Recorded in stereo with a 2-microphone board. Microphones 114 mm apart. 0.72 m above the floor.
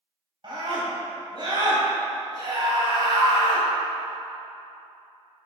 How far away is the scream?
About 3.5 m.